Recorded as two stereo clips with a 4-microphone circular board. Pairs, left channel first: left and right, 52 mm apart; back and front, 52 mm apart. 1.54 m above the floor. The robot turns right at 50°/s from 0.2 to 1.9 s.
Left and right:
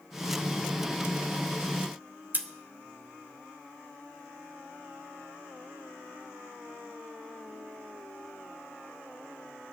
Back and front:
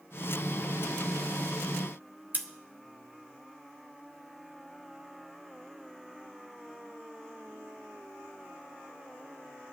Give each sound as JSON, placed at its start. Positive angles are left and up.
{"t": 2.3, "sound": "scissors", "azimuth_deg": -45, "distance_m": 1.3}